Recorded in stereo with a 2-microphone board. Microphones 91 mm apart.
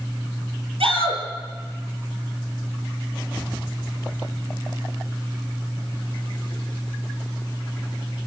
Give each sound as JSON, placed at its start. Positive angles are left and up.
{"t": 0.8, "sound": "a shout", "side_deg": -80, "distance_m": 6.5}